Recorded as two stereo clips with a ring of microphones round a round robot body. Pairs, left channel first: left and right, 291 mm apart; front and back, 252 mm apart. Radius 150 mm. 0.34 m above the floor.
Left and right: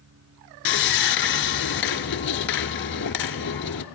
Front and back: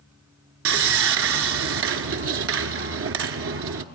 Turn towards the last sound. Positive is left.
turn(degrees=145)